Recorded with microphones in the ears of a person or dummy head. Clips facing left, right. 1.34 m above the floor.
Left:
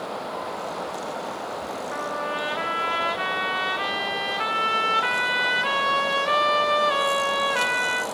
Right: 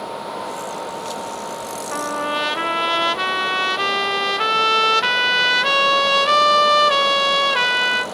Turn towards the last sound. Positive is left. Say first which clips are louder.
# right 7 dB
turn(degrees=-60)  # may be behind; listen again after turning